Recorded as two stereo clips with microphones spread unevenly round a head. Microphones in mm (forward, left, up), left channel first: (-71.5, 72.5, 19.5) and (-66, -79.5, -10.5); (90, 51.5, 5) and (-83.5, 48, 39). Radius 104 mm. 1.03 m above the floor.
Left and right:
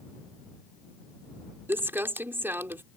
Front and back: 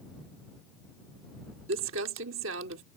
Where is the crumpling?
170° right.